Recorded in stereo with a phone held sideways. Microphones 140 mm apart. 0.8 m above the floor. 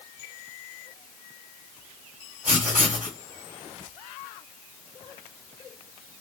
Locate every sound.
2.5 s writing: 75° right (ahead or behind), 1.8 m